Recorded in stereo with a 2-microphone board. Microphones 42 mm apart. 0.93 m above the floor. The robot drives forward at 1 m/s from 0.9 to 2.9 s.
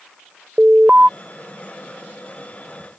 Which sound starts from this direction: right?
An alarm, at 0.6 s.